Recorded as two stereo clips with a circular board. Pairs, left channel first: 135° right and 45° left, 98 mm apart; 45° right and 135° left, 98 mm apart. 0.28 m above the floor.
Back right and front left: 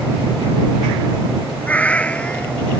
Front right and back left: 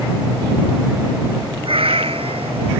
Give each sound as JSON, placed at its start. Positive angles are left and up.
{"t": 1.6, "sound": "a cat meowing", "azimuth_deg": 150}